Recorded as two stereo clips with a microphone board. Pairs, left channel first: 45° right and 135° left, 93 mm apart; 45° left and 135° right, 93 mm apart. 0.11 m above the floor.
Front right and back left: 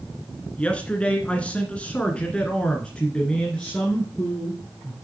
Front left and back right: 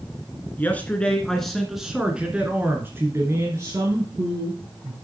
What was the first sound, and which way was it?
A man speaking, 10° left.